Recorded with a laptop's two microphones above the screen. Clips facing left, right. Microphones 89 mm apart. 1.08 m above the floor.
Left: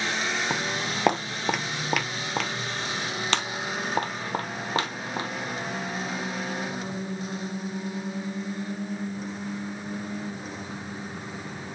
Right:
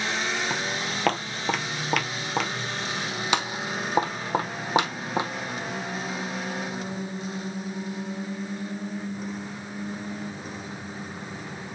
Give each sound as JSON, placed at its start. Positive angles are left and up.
{"t": 0.5, "sound": "footsteps", "side_deg": 20, "distance_m": 1.2}